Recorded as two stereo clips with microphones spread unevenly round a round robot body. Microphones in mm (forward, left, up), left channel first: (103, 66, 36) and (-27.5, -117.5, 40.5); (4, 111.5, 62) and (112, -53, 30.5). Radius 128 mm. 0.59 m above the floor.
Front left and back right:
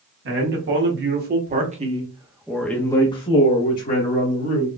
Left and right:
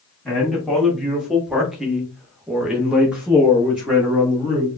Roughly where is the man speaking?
Behind right.